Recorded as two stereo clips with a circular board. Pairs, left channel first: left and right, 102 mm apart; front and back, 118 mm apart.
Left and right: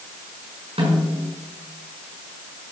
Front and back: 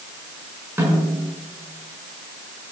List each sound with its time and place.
0.8 s a snare drum: 110° right, 6.5 m